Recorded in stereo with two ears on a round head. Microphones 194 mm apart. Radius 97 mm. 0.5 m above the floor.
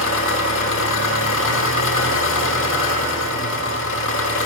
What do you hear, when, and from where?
0.0 s an engine running: 65° left (ahead or behind), 1.1 m